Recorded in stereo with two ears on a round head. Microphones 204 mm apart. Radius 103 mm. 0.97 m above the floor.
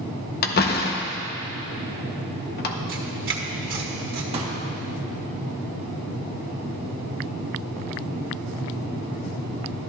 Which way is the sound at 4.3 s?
30° right (ahead or behind).